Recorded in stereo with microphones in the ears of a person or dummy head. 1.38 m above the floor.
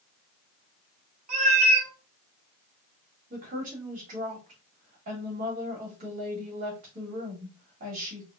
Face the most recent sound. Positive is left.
turn(degrees=-45)  # may be behind; listen again after turning